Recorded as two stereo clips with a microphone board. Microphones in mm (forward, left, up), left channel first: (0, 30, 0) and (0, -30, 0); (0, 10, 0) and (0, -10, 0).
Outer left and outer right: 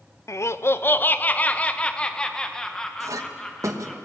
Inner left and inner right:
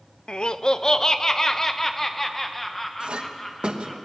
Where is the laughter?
55° left (ahead or behind), 0.6 m; by 4.0 s 5° left (ahead or behind), 2 m.